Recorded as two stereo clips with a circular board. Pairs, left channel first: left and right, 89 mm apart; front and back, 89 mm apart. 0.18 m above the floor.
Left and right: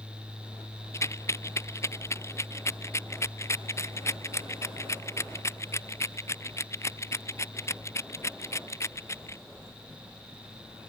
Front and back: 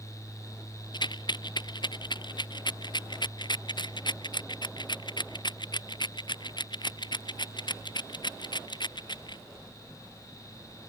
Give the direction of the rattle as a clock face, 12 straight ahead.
11 o'clock.